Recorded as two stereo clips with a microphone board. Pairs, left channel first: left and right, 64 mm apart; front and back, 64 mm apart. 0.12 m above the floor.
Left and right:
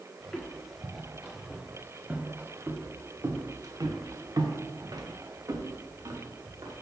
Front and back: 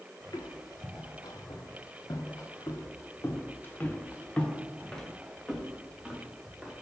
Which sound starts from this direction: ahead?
Footsteps, at 0.2 s.